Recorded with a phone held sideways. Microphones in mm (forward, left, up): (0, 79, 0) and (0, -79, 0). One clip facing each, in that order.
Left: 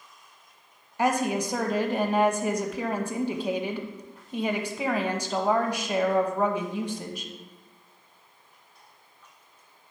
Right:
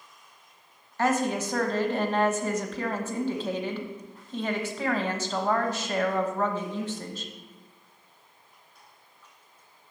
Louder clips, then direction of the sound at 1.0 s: Left 1 dB; 15° left (ahead or behind).